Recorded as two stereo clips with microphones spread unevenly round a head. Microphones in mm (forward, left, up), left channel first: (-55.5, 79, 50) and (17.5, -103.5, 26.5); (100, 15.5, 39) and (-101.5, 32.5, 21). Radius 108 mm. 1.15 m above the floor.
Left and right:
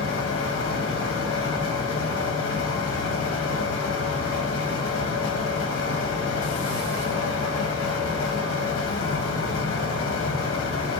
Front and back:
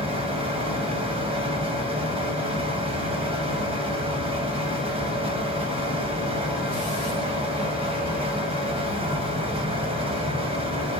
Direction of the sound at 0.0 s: 115° left.